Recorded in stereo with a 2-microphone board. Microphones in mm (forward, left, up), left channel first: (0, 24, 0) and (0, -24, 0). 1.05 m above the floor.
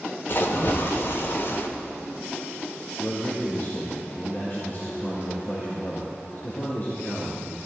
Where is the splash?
55° left (ahead or behind), 1.2 m.